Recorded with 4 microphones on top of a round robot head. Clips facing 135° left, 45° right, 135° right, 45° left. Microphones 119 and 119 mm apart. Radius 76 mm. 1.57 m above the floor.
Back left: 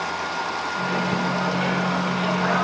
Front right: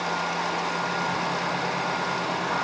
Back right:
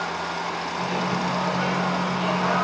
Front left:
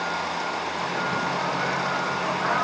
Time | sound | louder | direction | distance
0.8 | a microwave | back left 3 dB, back right 4 dB | 155° left | 1.2 m